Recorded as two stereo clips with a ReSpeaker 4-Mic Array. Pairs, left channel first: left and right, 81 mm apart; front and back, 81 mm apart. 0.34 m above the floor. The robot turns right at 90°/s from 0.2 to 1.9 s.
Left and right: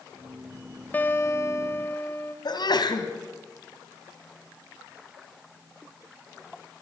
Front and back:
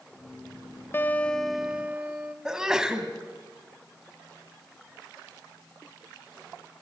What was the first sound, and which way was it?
A guitar, 40° left.